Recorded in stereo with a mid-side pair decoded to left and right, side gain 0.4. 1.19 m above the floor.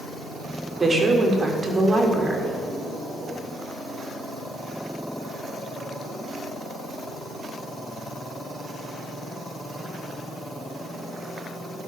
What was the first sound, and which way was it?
A woman speaking, 35° right.